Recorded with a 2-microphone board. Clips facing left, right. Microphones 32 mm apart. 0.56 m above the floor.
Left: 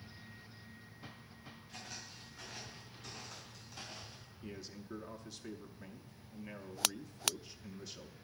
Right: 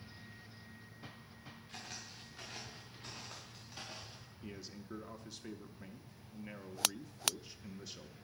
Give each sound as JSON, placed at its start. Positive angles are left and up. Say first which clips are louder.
{"t": 1.7, "sound": "footsteps", "louder": "even", "side_deg": -45, "distance_m": 5.5}
{"t": 4.4, "sound": "a man speaking", "louder": "left 1 dB", "side_deg": -5, "distance_m": 0.6}